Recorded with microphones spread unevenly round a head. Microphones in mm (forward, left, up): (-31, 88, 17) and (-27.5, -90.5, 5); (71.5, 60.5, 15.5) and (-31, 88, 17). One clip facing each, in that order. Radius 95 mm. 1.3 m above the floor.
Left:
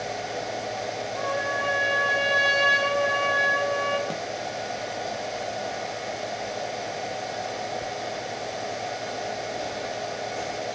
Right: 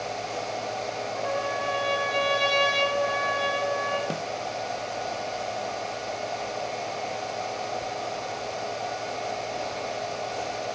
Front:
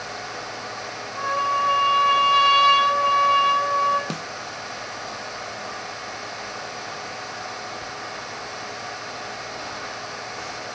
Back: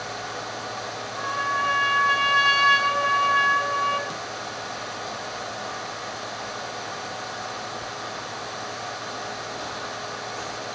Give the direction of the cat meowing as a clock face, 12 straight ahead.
No cat meowing in this recording.